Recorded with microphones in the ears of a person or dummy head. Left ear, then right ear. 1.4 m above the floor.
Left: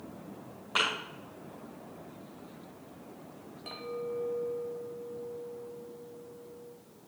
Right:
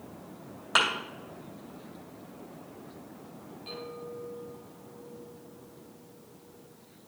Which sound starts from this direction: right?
A thud, at 0.8 s.